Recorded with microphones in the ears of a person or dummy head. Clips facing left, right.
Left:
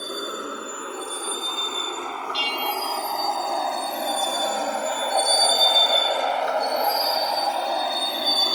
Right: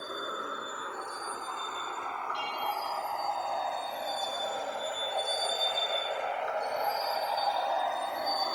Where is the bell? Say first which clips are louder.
Left 7 dB; 80° left.